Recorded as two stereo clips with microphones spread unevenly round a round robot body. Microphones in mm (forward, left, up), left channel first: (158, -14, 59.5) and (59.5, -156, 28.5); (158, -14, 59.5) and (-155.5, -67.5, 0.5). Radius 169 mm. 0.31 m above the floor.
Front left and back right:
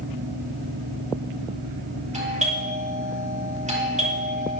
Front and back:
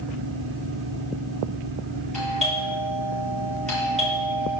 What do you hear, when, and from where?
2.1 s a doorbell: 80° right, 10 m